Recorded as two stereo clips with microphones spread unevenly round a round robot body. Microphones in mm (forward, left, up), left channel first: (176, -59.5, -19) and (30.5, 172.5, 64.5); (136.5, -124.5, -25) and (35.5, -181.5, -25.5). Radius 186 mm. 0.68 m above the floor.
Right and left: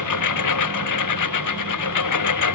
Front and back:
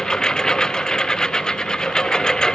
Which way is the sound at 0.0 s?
55° right.